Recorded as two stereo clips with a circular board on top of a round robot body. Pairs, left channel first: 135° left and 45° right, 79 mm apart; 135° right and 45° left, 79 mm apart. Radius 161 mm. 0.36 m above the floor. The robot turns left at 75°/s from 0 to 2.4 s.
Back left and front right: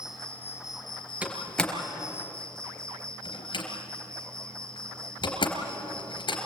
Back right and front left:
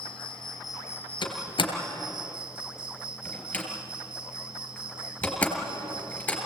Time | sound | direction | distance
0.0 | an insect | 125° right | 1.1 m
1.2 | a door slam | 120° right | 3.5 m